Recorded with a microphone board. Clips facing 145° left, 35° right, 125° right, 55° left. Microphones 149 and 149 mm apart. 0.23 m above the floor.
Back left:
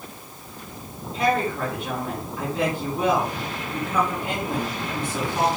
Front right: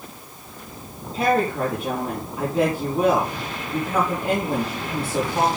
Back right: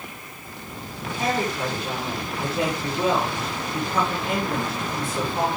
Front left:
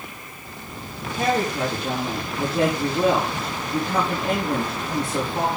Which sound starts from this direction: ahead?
A woman speaking, at 1.1 s.